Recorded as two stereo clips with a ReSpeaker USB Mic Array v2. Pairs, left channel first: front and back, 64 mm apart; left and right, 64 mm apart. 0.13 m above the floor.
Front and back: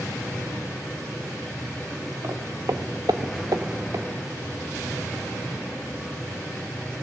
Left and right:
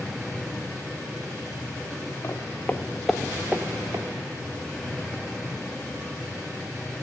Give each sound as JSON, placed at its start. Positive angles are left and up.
{"t": 2.2, "sound": "footsteps", "azimuth_deg": 140, "distance_m": 1.0}